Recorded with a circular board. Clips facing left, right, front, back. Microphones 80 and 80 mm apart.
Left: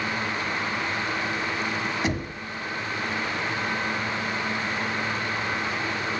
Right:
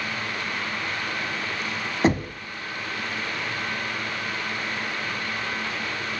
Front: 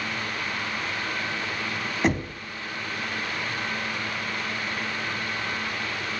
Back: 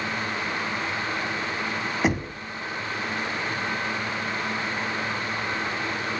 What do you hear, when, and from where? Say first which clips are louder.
2.0 s knocking: right 6 dB, front 1 dB; 95° right, 1.1 m